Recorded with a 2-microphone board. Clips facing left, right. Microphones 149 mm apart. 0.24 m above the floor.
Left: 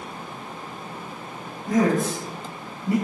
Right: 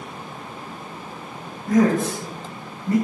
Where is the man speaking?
10° left (ahead or behind), 1.4 m.